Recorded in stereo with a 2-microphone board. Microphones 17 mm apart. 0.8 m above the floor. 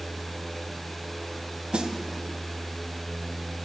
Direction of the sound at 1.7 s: 85° right.